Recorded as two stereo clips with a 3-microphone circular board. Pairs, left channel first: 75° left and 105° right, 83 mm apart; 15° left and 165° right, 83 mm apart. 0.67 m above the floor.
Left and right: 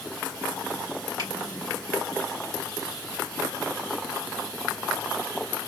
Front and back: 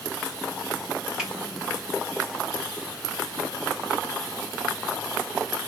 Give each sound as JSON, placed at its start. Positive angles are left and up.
{"t": 1.2, "sound": "a finger snap", "azimuth_deg": -85, "distance_m": 1.8}